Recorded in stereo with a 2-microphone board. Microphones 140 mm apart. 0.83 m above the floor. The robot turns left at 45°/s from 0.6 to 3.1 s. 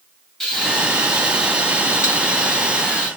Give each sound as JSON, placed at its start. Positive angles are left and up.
{"t": 0.4, "sound": "frying", "azimuth_deg": 180, "distance_m": 1.3}